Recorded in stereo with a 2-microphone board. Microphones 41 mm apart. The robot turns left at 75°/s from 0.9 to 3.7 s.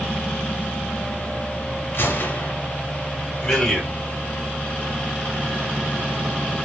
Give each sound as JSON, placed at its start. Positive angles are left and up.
{"t": 1.9, "sound": "a gunshot", "azimuth_deg": 80, "distance_m": 0.8}
{"t": 3.4, "sound": "a man speaking", "side_deg": 15, "distance_m": 1.4}